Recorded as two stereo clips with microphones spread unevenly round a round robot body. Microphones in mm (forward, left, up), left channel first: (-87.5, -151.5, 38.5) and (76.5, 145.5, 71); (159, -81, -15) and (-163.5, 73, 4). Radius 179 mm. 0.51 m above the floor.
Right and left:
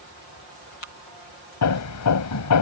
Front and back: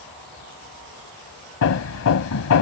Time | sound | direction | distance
1.6 | hammering | 75° right | ?